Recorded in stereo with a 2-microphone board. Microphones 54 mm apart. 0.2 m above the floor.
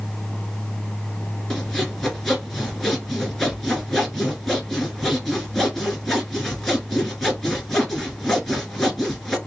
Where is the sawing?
5° left (ahead or behind), 1.6 m.